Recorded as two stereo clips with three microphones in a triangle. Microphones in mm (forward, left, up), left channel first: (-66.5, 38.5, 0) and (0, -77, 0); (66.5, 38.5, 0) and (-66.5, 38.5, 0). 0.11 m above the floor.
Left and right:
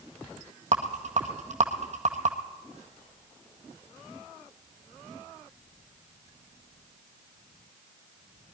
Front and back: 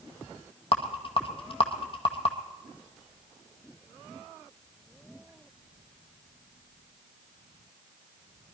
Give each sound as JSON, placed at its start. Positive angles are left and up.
{"t": 0.7, "sound": "a rattle", "azimuth_deg": -40, "distance_m": 1.7}